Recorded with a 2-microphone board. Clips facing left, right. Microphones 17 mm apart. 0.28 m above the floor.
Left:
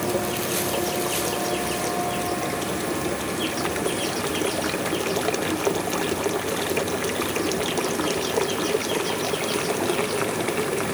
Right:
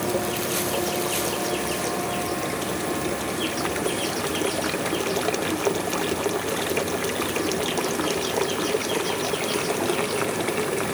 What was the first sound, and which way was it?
Only background noise.